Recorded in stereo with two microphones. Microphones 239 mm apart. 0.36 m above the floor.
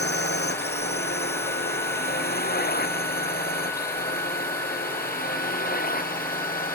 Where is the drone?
45° left (ahead or behind); by 6.8 s 35° left (ahead or behind).